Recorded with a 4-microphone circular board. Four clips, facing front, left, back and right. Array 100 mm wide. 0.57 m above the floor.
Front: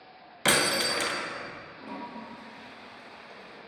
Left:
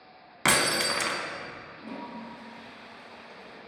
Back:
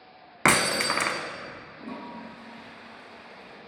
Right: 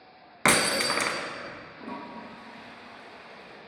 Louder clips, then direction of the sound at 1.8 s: Even, back 1 dB; 135° right.